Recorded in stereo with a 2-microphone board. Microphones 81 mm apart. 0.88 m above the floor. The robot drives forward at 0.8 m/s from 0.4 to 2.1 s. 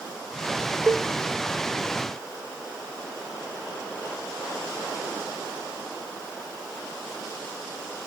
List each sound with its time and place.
0.9 s a cowbell: 25° right (ahead or behind), 0.7 m